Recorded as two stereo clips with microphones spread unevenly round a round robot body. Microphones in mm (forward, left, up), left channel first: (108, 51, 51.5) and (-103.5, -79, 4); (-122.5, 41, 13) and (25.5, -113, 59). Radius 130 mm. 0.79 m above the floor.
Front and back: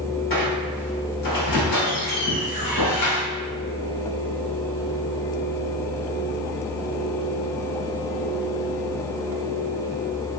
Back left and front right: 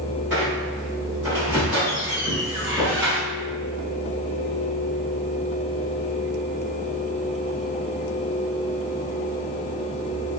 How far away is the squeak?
About 1.4 m.